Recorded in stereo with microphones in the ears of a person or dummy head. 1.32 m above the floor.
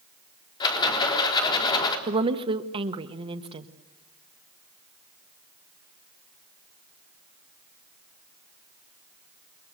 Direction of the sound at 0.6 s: 25° left (ahead or behind).